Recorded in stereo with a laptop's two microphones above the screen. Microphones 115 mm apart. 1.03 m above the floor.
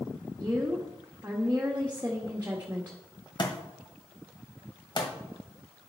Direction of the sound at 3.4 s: 45° left (ahead or behind).